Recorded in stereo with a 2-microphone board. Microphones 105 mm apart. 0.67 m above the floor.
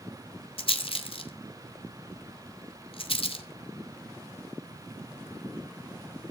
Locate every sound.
0.6 s a rattle: 60° left (ahead or behind), 2.5 m